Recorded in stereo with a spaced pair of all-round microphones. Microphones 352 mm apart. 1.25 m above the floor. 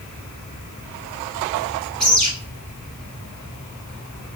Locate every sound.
2.0 s a bird: 15° right (ahead or behind), 2.5 m